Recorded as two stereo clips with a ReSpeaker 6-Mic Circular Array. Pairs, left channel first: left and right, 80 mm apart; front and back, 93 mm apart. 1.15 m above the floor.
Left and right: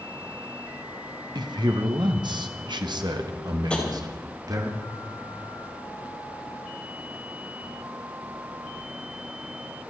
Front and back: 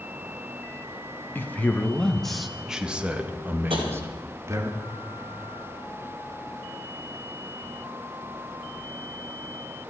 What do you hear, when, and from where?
1.4 s a man speaking: 70° right, 1.3 m; by 4.7 s 125° right, 2.0 m
3.7 s tapping: 170° left, 3 m